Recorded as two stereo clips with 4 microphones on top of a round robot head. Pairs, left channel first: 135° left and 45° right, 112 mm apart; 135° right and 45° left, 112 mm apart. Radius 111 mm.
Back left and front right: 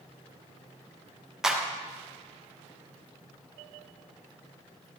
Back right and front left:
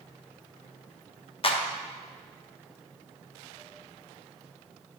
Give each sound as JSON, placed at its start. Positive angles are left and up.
{"t": 1.4, "sound": "a clap", "azimuth_deg": -130, "distance_m": 1.0}